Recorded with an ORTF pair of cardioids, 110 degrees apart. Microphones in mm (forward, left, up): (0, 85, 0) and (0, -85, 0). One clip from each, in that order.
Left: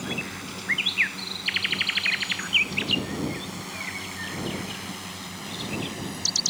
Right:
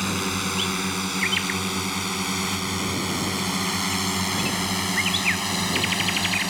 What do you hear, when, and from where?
0.0 s a drone: 70° right; by 6.5 s 65° right